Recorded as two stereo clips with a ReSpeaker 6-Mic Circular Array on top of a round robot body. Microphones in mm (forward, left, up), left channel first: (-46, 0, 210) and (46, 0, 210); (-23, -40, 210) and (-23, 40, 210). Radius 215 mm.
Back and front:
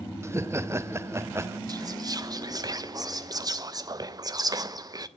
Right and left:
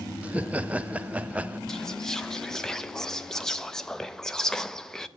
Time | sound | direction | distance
0.2 | laughter | 30° left | 0.6 m
1.7 | whispering | 10° right | 0.8 m